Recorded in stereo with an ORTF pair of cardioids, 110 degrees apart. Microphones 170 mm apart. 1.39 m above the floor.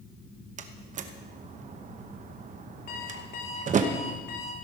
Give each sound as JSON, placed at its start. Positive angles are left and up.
{"t": 0.6, "sound": "a door slam", "azimuth_deg": -45, "distance_m": 1.0}
{"t": 2.9, "sound": "an alarm clock", "azimuth_deg": 60, "distance_m": 2.0}